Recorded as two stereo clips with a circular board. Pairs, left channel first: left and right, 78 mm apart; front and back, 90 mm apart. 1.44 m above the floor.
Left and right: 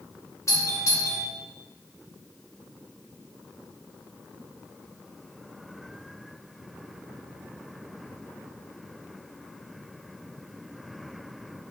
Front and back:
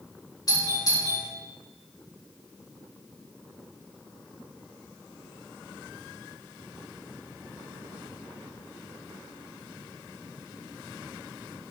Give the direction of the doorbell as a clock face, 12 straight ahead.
11 o'clock.